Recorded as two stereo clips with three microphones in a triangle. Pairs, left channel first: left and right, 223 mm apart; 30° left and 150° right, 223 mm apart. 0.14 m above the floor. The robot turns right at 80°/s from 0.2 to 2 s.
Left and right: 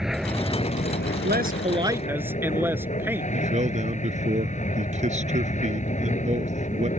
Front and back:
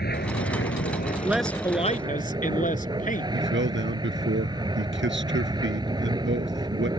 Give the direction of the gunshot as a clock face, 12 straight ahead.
No gunshot in this recording.